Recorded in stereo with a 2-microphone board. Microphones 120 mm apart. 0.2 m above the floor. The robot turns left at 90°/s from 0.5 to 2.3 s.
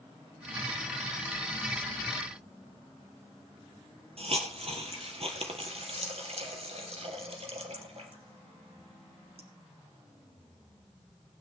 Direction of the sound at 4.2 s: 55° right (ahead or behind).